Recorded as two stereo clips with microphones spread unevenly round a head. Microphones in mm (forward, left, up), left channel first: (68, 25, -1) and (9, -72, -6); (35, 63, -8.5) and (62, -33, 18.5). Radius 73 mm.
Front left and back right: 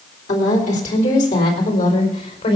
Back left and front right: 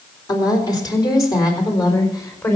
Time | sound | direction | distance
0.3 | a woman speaking | 60° left | 3.5 m